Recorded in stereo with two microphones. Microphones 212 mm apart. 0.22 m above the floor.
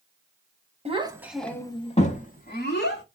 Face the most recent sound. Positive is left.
turn(degrees=55)  # may be behind; listen again after turning